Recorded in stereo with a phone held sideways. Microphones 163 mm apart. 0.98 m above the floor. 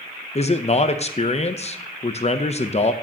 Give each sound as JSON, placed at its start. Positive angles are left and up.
{"t": 0.3, "sound": "a man speaking", "side_deg": 40, "distance_m": 0.5}